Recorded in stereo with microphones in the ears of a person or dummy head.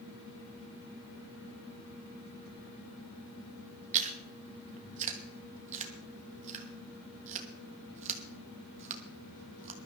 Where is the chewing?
35° right (ahead or behind), 1.2 m.